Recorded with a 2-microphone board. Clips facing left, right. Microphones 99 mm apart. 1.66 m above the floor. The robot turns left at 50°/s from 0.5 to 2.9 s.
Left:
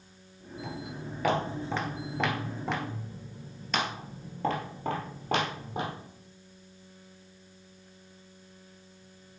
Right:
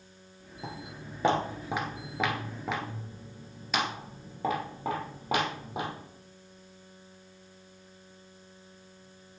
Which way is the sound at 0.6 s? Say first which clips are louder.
Left 2 dB; 35° right (ahead or behind).